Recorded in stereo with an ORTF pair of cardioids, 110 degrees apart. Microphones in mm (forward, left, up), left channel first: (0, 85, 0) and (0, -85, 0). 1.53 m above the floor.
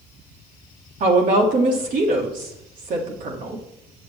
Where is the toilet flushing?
No toilet flushing in this recording.